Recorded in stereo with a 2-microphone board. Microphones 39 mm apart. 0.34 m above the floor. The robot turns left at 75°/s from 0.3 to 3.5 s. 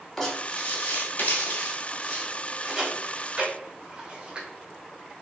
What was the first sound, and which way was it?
Writing, 10° left (ahead or behind).